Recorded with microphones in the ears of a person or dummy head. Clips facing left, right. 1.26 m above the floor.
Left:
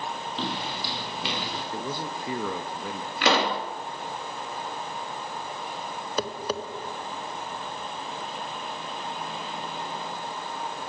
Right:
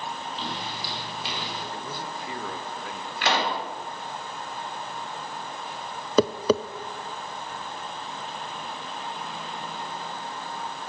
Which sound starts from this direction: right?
Tapping, at 6.2 s.